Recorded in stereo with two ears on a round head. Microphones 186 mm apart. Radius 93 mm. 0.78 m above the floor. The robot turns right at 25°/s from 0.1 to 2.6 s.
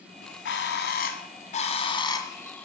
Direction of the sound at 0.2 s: 65° left (ahead or behind).